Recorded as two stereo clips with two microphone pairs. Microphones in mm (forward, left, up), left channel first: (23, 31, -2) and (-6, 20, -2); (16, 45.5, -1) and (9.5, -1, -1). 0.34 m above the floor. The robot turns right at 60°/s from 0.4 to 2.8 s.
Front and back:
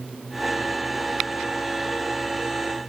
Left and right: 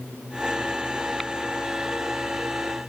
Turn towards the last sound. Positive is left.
No sound to turn to.